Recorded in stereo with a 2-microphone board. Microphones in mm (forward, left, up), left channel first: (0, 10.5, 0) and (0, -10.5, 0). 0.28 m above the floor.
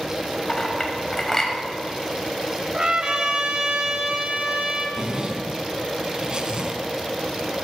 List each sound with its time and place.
0.5 s a clink: 20° left (ahead or behind), 1.2 m
2.7 s a trumpet: 40° right (ahead or behind), 1.0 m
5.0 s a zipper: 35° right (ahead or behind), 0.7 m